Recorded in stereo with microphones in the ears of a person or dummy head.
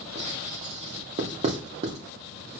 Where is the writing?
35° right (ahead or behind), 3 m.